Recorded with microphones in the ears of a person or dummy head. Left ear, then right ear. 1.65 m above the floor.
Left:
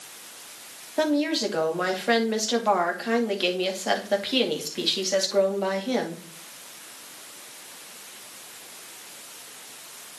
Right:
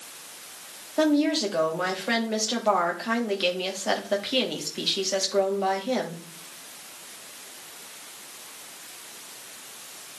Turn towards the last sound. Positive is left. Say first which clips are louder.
# right 1 dB
turn(degrees=0)  # may be behind; listen again after turning